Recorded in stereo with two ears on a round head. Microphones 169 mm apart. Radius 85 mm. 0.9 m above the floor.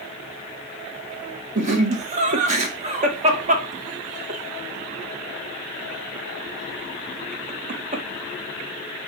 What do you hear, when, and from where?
1.6 s laughter: 35° right (ahead or behind), 1.2 m